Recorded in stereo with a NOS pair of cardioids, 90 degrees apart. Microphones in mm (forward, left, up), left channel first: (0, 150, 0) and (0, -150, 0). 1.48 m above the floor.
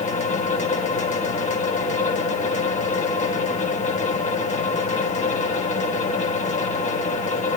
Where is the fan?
25° left, 1.6 m.